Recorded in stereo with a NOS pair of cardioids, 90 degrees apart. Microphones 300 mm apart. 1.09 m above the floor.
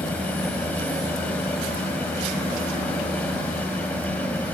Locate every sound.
0.0 s a fan: 5° left